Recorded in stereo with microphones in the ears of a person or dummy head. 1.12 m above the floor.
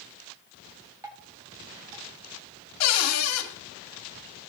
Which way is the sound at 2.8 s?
75° left (ahead or behind).